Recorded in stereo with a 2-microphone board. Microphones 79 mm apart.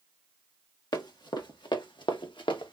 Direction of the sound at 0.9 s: 65° left (ahead or behind).